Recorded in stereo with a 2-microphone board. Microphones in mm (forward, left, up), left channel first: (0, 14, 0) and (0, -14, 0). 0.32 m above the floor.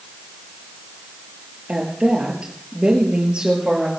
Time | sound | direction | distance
1.7 | a woman speaking | 35° right (ahead or behind) | 5.5 m